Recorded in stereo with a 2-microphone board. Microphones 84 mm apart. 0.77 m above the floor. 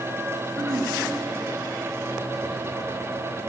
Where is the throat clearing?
45° right (ahead or behind), 6.5 m.